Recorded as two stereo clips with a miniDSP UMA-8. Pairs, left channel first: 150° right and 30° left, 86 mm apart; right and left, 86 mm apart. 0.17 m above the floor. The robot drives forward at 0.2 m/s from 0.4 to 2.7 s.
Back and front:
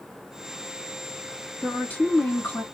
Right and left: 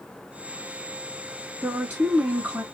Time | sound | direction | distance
1.6 | a woman speaking | 150° left | 1.3 m